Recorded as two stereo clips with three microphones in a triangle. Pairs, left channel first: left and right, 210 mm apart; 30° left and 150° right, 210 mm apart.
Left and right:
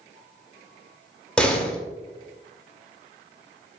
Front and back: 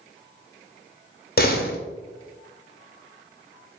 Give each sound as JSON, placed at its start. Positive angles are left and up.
{"t": 1.4, "sound": "a door slam", "azimuth_deg": 5, "distance_m": 0.7}